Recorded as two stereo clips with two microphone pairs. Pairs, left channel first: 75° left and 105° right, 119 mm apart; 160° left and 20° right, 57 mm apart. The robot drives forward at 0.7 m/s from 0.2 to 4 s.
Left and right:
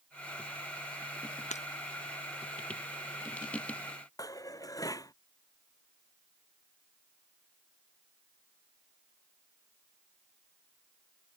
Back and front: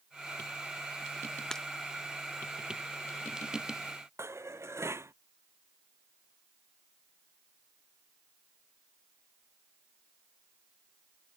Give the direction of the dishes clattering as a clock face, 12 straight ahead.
12 o'clock.